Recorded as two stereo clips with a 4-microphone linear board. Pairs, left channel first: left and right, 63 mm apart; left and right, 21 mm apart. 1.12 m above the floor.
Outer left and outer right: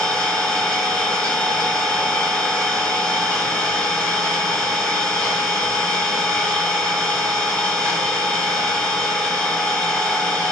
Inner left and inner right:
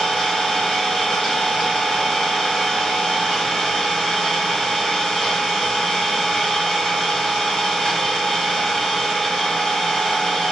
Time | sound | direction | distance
0.0 | an engine running | 15° left (ahead or behind) | 1.8 m